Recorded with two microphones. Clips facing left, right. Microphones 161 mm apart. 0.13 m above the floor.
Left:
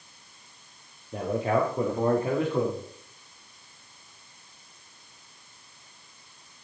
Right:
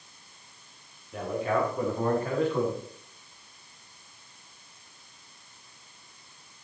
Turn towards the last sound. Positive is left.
turn(degrees=20)  # may be behind; listen again after turning